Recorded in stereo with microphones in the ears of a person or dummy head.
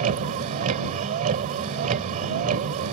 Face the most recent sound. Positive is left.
turn(degrees=-45)  # may be behind; listen again after turning